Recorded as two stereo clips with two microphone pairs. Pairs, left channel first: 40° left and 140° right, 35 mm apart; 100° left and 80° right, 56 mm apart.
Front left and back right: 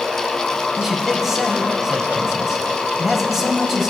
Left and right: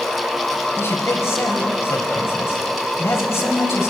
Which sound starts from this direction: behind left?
A man speaking, at 0.8 s.